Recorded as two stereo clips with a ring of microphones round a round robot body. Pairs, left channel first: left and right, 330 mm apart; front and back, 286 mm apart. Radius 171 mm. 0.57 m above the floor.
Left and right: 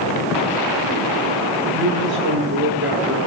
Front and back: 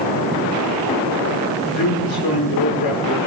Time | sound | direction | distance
1.7 | a man speaking | 35° right | 8.5 m